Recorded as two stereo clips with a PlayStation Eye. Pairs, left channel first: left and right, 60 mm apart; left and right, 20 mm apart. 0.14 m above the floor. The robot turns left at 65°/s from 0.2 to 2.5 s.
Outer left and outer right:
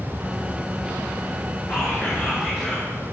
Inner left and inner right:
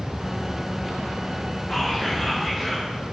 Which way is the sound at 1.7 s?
55° left.